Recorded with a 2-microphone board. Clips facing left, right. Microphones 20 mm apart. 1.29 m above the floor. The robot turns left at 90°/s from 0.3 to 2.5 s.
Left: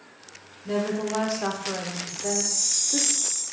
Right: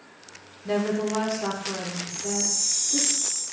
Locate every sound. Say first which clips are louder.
0.7 s a woman speaking: right 1 dB; 145° right, 0.9 m; by 3.1 s 50° left, 0.9 m
2.1 s a chime: left 1 dB; 105° left, 0.8 m; by 3.4 s 65° left, 0.8 m